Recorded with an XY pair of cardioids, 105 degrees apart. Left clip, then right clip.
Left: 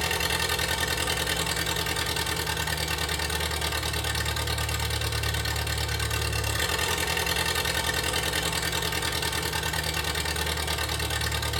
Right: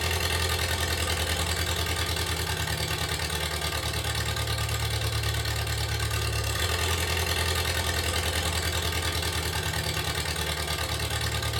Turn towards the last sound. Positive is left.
turn(degrees=20)